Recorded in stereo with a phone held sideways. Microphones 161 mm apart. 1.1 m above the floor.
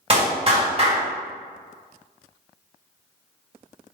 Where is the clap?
35° right (ahead or behind), 1.9 m.